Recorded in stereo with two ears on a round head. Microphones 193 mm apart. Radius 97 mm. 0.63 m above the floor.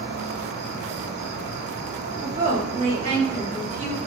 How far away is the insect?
About 1.6 m.